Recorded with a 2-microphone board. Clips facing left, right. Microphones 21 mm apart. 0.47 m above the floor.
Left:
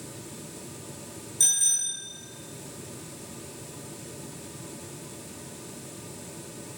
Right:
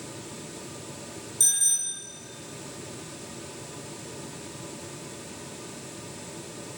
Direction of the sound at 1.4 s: 15° left (ahead or behind).